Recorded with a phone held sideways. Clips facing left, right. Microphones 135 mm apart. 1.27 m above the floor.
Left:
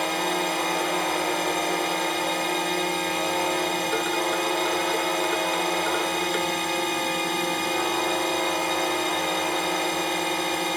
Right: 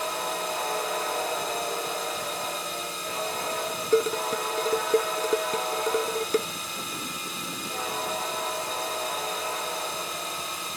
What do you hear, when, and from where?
0.0 s a drone: 70° left (ahead or behind)
3.9 s dishes clattering: 35° right (ahead or behind)